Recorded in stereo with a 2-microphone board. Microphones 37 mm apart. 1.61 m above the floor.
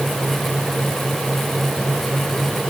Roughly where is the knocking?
I don't hear knocking.